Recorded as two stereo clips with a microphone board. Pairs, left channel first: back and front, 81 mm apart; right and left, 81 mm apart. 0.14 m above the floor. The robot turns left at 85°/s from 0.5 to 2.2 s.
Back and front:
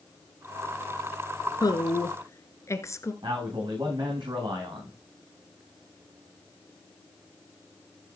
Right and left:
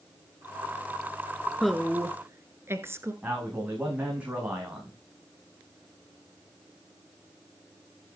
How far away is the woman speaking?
About 1.6 m.